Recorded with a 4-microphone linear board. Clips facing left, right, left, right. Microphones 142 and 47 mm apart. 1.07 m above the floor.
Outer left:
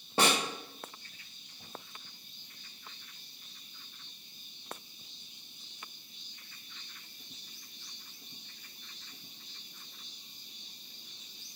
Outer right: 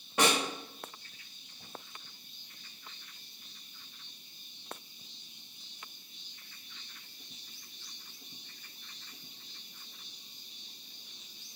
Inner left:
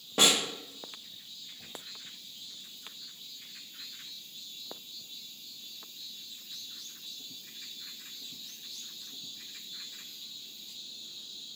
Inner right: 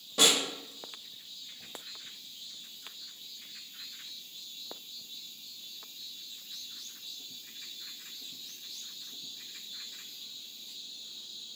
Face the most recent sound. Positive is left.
turn(degrees=30)  # may be behind; listen again after turning